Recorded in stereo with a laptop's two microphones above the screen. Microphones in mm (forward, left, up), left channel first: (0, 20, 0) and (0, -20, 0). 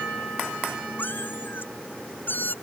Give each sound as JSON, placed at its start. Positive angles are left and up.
{"t": 1.0, "sound": "a cat meowing", "side_deg": 60}